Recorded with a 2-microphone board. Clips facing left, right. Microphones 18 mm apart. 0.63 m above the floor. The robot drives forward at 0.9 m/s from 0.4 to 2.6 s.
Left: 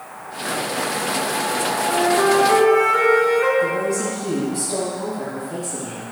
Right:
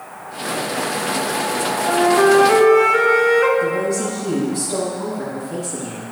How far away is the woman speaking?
About 3.5 m.